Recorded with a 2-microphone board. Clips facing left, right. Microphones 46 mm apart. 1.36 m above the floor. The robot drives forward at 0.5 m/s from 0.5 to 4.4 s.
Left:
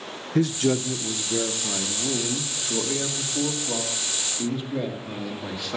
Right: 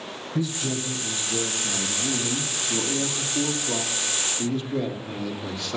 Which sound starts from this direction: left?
A man speaking, at 0.3 s.